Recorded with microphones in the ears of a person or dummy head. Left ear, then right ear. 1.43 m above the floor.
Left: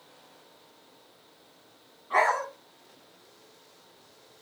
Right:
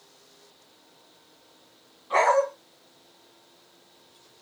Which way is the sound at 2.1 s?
15° right (ahead or behind).